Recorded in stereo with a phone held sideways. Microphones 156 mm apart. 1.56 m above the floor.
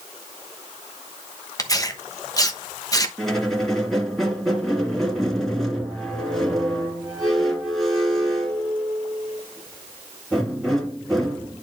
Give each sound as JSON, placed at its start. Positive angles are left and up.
{"t": 1.6, "sound": "tearing paper", "side_deg": 25, "distance_m": 1.0}
{"t": 3.2, "sound": "a squeak", "side_deg": 0, "distance_m": 2.5}